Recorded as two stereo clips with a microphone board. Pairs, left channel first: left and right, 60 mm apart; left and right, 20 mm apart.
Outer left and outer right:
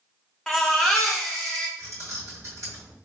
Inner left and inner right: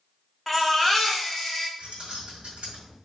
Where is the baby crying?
5° left (ahead or behind), 1.1 m.